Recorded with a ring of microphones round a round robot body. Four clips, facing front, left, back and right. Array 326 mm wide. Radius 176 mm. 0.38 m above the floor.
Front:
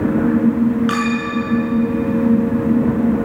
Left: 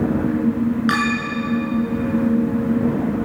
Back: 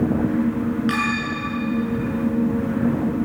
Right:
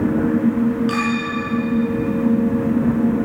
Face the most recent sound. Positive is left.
turn(degrees=55)